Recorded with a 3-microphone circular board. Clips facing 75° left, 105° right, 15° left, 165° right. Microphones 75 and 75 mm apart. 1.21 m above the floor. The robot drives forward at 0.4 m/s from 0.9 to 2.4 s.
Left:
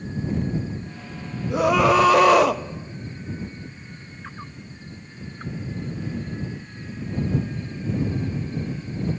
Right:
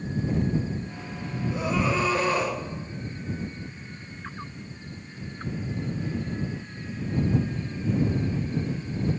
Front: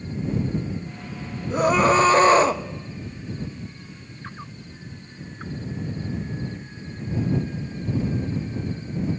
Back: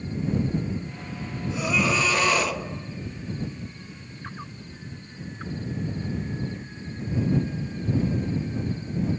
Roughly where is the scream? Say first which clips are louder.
Left 9 dB, front 8 dB; ahead left.